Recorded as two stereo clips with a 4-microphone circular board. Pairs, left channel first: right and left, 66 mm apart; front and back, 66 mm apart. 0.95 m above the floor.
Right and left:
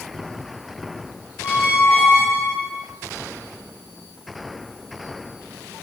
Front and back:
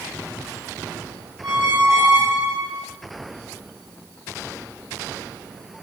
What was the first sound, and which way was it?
A squeak, 140° right.